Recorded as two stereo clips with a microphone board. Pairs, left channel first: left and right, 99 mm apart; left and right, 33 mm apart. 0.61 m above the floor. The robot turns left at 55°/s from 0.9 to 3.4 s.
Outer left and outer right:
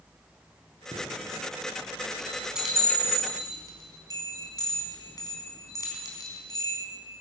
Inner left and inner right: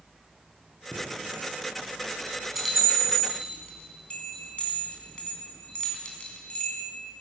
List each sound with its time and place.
0.9 s a chime: 80° right, 3 m; by 6.8 s 40° left (ahead or behind), 3 m